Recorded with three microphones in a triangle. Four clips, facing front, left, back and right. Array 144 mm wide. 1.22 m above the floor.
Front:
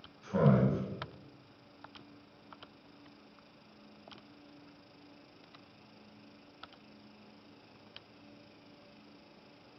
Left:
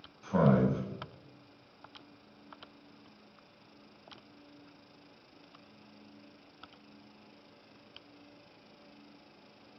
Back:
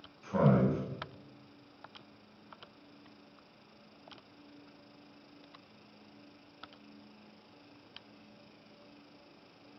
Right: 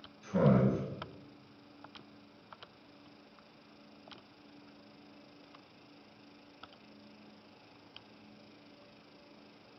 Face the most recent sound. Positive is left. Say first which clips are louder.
# left 1 dB, even
turn(degrees=100)